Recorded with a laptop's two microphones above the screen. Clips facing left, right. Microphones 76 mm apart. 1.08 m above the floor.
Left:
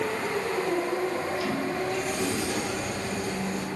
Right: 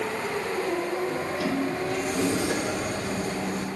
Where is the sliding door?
75° right (ahead or behind), 1.9 m.